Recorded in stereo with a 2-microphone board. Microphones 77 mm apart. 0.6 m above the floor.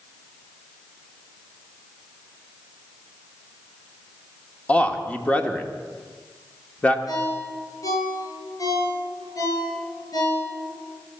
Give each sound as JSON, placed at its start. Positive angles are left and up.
{"t": 4.7, "sound": "a man speaking", "side_deg": 15, "distance_m": 1.2}
{"t": 7.1, "sound": "a ringtone", "side_deg": 45, "distance_m": 5.0}